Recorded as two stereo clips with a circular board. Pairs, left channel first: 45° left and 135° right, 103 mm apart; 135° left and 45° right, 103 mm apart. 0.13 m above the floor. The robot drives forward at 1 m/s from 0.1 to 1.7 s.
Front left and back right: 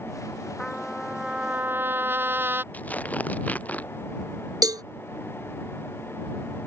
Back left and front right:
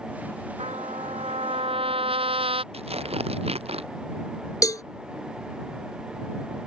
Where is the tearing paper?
30° right.